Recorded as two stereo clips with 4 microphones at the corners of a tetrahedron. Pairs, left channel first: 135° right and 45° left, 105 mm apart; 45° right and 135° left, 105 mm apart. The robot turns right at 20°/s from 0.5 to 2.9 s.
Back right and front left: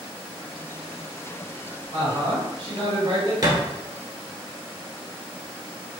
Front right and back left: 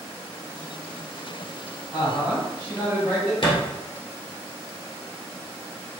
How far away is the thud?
About 1.3 m.